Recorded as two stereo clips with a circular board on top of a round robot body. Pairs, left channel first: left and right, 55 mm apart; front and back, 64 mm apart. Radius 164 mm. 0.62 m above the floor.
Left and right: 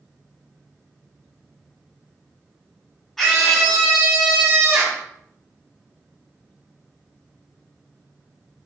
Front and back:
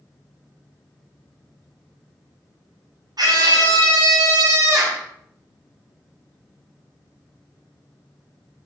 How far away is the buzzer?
I don't hear a buzzer.